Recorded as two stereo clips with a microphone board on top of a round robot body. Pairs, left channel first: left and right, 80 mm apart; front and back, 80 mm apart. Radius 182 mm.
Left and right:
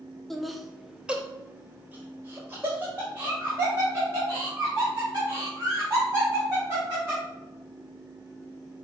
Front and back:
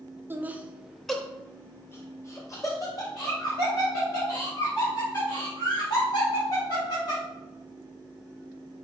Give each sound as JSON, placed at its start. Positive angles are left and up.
{"t": 0.3, "sound": "laughter", "azimuth_deg": 175, "distance_m": 0.9}